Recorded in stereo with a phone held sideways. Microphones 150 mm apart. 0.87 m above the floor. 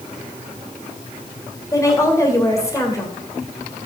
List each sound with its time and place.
1.7 s a woman speaking: 20° left (ahead or behind), 2.5 m